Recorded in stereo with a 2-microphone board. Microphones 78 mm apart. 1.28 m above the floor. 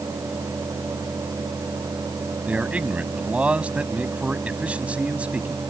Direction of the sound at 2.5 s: 15° right (ahead or behind).